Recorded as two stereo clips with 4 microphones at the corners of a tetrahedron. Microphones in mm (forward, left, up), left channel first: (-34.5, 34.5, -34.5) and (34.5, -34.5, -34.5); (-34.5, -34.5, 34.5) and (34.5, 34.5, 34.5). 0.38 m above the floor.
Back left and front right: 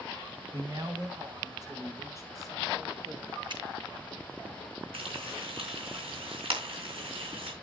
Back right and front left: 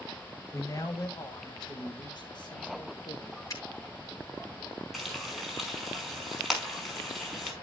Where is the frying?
45° right, 5 m.